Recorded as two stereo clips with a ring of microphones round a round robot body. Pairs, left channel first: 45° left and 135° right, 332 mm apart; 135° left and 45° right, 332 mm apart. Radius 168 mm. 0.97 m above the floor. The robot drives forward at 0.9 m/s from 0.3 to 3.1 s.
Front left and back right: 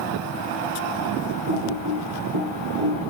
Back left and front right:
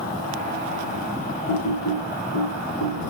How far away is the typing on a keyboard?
About 3 m.